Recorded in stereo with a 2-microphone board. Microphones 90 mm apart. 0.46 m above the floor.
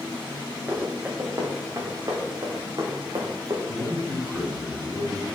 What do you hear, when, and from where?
0.7 s running footsteps: 25° right (ahead or behind), 3 m; by 3.6 s 50° right (ahead or behind), 2.5 m
3.7 s a man speaking: 5° right (ahead or behind), 3.5 m